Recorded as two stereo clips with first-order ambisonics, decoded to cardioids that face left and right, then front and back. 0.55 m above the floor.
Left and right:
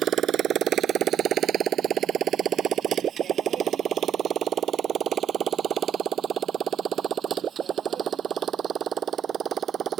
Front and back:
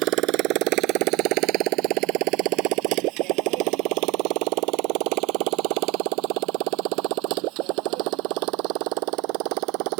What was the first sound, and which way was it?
A motorcycle, 145° right.